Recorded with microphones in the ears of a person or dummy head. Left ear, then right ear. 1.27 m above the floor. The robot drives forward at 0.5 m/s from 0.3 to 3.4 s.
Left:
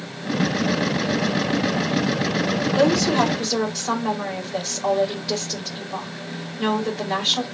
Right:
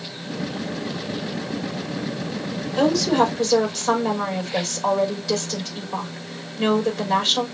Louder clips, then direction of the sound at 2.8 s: Right 1 dB; centre (ahead or behind).